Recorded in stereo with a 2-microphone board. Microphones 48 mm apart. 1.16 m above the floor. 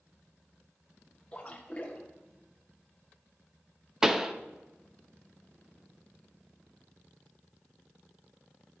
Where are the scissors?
No scissors in this recording.